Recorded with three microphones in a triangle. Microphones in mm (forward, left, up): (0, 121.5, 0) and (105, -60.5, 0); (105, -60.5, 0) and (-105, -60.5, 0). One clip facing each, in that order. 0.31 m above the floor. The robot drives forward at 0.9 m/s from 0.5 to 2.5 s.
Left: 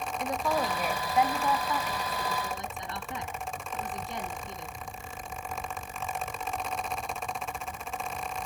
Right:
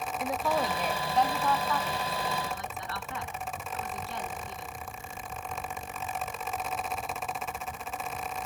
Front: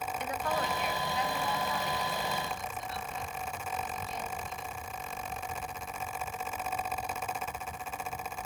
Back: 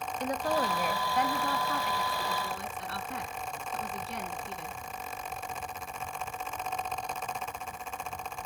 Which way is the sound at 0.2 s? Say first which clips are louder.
Even, back 5 dB; 145° right.